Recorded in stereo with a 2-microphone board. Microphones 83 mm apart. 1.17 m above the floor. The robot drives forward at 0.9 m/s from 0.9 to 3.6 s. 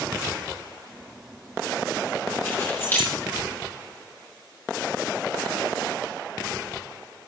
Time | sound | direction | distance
2.5 | keys jangling | 30° left (ahead or behind) | 4 m